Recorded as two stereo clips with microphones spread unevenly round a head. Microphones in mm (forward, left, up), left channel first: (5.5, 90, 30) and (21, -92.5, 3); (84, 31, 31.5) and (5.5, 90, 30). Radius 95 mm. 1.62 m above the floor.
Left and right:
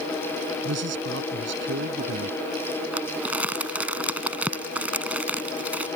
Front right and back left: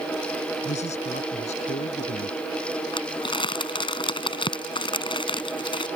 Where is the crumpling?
Straight ahead.